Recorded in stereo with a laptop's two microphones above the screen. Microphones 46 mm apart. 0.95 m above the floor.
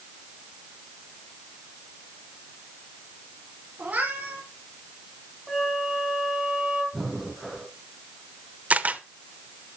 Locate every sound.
3.8 s a cat meowing: 35° right (ahead or behind), 4 m
5.5 s a flute: 5° right (ahead or behind), 4 m
6.9 s breathing: centre (ahead or behind), 2.5 m
8.7 s a camera shutter: 35° right (ahead or behind), 0.9 m